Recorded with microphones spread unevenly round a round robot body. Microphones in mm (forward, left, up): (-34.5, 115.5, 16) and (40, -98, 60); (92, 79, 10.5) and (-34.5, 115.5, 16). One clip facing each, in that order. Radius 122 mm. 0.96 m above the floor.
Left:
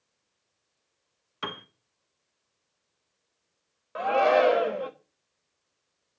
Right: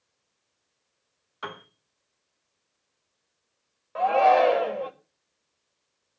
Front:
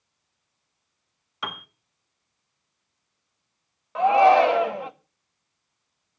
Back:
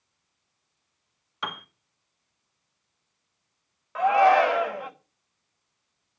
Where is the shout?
45° left, 1.7 m.